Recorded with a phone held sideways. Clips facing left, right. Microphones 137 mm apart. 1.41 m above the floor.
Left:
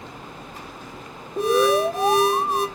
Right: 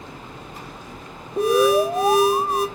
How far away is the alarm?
About 2 m.